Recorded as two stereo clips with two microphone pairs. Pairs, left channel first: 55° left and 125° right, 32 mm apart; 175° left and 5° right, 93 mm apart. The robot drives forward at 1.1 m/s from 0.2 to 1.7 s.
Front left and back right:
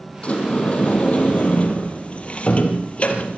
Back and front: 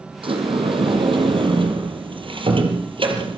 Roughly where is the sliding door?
Ahead.